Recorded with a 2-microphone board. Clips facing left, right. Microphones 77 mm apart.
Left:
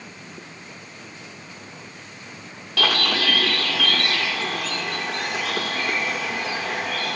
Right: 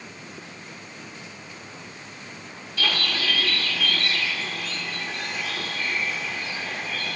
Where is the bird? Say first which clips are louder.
Left 5 dB; 80° left, 2 m.